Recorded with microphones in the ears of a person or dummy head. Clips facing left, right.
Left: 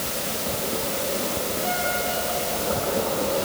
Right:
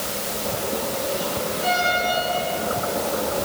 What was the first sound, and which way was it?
Only background noise.